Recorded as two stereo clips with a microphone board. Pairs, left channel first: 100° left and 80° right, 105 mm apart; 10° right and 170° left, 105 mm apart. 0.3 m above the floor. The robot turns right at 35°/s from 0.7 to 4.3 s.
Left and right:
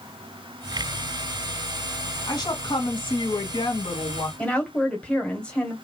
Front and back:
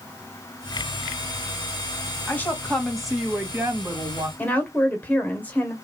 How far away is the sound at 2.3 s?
About 1.8 m.